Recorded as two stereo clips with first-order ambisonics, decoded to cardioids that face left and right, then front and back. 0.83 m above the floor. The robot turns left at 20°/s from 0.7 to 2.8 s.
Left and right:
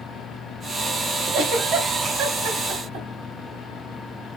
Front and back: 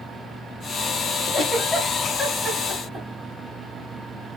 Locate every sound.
1.3 s a giggle: 75° right, 1.4 m; by 3.1 s 105° right, 1.4 m